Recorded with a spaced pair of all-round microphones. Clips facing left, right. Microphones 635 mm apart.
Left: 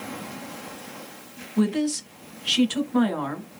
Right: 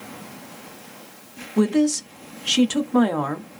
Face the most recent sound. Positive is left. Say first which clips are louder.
# right 4 dB
turn(degrees=-70)  # may be behind; listen again after turning